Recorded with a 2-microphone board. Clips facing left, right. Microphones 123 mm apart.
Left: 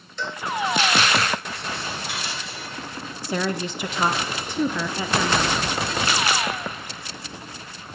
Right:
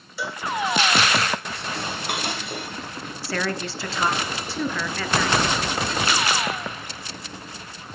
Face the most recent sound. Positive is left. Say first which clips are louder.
# left 2 dB
turn(degrees=20)  # may be behind; listen again after turning